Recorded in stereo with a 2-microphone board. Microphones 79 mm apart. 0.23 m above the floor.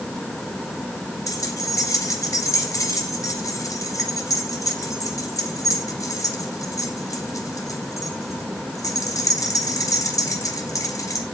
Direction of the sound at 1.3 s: 45° left (ahead or behind).